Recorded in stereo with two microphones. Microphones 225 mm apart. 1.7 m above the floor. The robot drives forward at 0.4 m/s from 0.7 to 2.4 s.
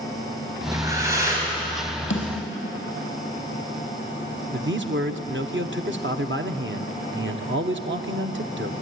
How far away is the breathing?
About 4 m.